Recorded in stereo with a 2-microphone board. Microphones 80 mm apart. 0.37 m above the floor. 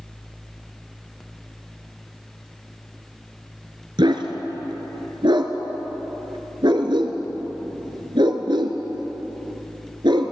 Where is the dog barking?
70° right (ahead or behind), 2 m.